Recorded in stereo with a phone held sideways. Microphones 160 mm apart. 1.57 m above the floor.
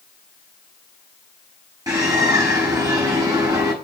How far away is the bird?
About 7.5 m.